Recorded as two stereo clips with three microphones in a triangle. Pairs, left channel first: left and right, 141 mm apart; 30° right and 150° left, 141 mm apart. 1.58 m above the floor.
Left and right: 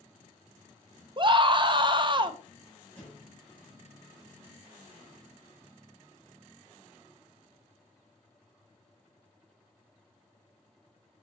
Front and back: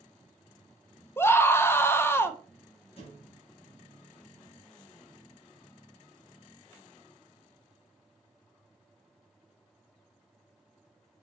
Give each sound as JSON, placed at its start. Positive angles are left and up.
{"t": 1.2, "sound": "a scream", "azimuth_deg": -90, "distance_m": 0.5}
{"t": 3.0, "sound": "a thud", "azimuth_deg": 5, "distance_m": 2.5}